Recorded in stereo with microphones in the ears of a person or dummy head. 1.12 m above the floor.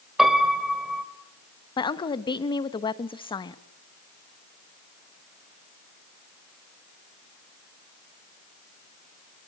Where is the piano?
5° right (ahead or behind), 3 m.